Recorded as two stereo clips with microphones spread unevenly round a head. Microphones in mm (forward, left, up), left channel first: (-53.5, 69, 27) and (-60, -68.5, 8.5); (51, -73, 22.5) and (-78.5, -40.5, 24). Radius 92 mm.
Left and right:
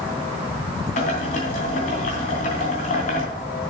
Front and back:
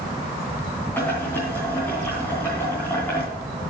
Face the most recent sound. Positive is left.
turn(degrees=65)